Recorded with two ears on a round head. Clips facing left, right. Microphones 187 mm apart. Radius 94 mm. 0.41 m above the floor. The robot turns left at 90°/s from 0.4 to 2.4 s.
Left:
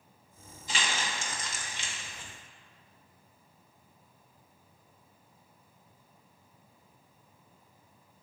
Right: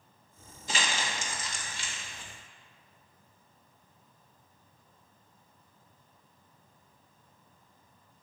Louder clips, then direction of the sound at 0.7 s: Right 1 dB; 40° right (ahead or behind).